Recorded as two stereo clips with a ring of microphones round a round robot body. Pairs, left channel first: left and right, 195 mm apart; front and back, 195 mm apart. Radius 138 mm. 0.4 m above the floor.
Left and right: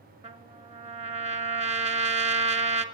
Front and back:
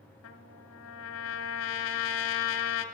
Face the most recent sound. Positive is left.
turn(degrees=-30)